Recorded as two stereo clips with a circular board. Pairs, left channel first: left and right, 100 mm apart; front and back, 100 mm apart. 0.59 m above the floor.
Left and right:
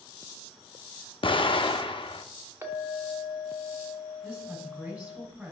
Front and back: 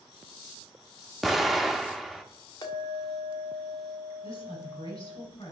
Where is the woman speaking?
20° right, 3 m.